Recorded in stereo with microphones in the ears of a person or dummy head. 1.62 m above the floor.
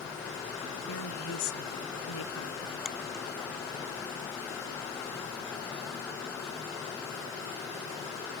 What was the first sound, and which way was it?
A woman speaking, 80° left.